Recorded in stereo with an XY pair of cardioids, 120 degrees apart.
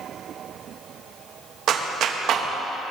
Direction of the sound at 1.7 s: 60° right.